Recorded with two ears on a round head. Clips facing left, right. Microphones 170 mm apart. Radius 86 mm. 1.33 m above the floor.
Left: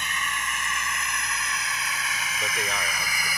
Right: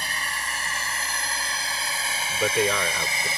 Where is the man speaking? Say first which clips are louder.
Right 10 dB; 75° right (ahead or behind).